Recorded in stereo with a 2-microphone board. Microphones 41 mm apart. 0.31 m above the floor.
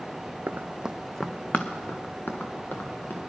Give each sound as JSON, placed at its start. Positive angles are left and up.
{"t": 0.5, "sound": "running footsteps", "side_deg": -55, "distance_m": 0.8}